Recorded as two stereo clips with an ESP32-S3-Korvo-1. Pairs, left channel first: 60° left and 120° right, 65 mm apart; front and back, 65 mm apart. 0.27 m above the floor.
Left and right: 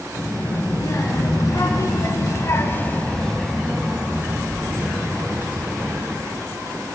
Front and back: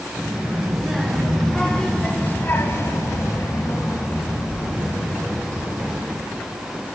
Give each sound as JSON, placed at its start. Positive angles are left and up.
{"t": 0.1, "sound": "a child speaking", "azimuth_deg": 90, "distance_m": 2.0}